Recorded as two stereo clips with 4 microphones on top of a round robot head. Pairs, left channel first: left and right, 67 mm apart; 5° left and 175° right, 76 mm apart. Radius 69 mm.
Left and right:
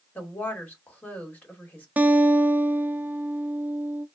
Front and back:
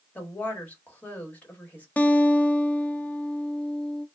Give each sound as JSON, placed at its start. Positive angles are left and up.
{"t": 0.1, "sound": "a woman speaking", "azimuth_deg": 50, "distance_m": 1.4}
{"t": 2.0, "sound": "a guitar", "azimuth_deg": -50, "distance_m": 0.5}